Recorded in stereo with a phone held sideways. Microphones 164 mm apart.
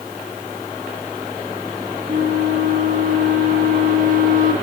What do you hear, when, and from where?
2.1 s a flute: 55° right (ahead or behind), 0.9 m